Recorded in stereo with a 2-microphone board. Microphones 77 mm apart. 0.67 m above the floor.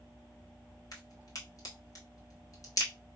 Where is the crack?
50° left (ahead or behind), 1.4 m.